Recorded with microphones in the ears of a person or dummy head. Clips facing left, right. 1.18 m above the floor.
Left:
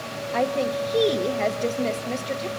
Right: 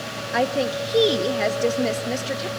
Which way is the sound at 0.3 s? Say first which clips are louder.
Right 1 dB; 10° right (ahead or behind).